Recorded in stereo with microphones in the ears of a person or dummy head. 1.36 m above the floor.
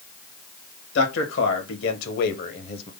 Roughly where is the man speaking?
Left.